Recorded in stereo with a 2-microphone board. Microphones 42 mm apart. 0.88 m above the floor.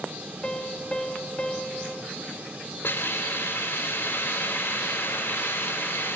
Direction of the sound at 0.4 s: 25° left (ahead or behind).